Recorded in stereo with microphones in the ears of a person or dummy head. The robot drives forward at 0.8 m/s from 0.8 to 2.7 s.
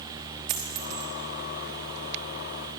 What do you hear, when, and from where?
0.5 s a dropped coin: 25° right (ahead or behind), 1.1 m; by 1.1 s 20° right (ahead or behind), 1.2 m